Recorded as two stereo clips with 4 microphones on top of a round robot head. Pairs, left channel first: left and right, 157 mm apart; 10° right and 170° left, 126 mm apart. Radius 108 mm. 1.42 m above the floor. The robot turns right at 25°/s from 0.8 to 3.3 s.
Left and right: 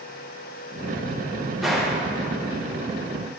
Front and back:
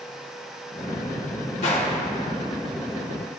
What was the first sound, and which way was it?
A gunshot, straight ahead.